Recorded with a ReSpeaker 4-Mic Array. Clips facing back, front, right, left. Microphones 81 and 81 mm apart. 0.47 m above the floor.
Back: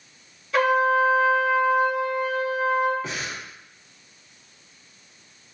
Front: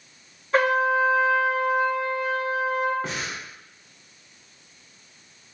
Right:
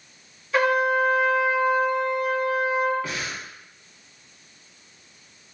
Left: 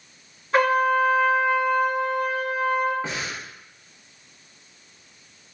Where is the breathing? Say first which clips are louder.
Front 1 dB, left 1 dB; 30° left, 0.7 m.